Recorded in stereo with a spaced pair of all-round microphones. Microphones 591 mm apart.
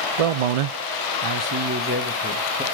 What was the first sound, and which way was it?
A man speaking, 65° right (ahead or behind).